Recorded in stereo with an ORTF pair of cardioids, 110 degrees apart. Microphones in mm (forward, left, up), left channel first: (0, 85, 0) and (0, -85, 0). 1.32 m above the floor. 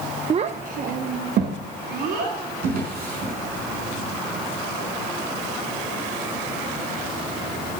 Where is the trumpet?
No trumpet in this recording.